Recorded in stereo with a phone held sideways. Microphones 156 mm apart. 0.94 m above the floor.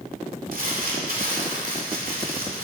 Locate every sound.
0.5 s crumpling: 70° right (ahead or behind), 2.5 m